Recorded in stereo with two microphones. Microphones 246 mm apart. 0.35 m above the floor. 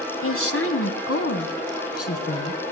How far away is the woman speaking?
About 1.6 m.